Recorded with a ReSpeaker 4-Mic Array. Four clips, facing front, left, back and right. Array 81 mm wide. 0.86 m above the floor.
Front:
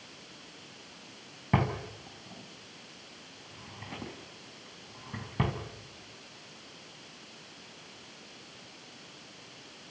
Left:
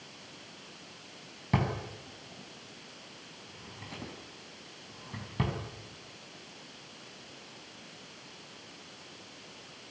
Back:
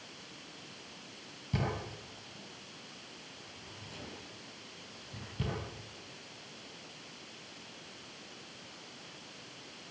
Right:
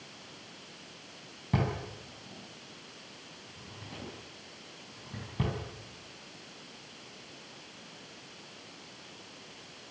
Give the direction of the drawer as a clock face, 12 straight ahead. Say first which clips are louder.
Left 1 dB, front 6 dB; 11 o'clock.